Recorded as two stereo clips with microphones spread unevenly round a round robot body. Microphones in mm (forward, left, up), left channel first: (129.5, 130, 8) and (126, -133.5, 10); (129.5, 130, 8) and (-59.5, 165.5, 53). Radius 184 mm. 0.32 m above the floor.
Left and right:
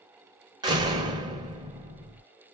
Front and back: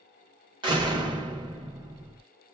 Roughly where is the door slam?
Behind right.